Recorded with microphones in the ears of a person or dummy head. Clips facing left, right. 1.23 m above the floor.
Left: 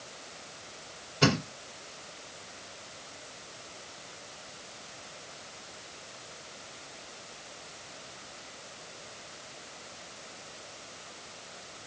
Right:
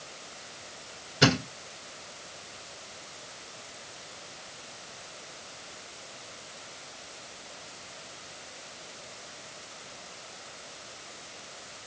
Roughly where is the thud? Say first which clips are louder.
Right 2 dB; centre.